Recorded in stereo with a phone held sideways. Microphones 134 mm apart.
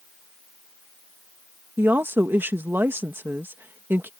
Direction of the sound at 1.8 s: 15° right (ahead or behind).